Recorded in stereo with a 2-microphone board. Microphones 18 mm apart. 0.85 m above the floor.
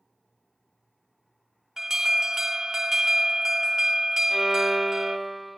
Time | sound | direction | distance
1.8 | an alarm | 30° right (ahead or behind) | 1.1 m
4.3 | a violin | centre (ahead or behind) | 1.1 m